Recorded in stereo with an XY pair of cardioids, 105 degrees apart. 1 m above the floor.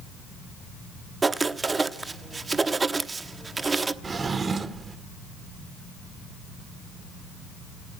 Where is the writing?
25° right, 0.9 m.